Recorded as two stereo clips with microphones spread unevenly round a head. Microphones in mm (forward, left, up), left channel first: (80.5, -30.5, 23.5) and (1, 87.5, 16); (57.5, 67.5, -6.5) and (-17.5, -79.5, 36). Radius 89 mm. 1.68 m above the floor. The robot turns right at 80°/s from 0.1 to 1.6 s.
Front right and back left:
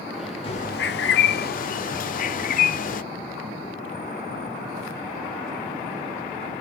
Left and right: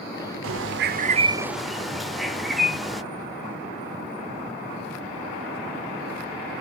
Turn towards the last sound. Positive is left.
turn(degrees=-25)